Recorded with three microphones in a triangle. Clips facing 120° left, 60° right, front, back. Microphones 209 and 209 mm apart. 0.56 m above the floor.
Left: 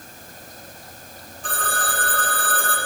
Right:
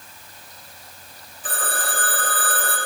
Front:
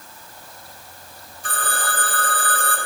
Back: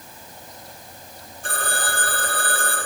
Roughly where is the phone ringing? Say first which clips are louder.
Even, back 1 dB; behind right.